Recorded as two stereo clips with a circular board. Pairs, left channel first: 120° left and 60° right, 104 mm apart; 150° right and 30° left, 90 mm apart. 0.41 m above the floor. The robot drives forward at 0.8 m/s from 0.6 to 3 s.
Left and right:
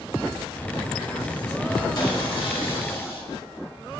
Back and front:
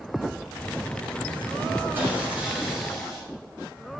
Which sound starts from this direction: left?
Sawing, at 1.9 s.